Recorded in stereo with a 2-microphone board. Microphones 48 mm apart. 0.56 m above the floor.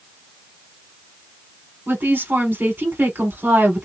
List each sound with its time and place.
1.9 s a woman speaking: 45° right (ahead or behind), 1.9 m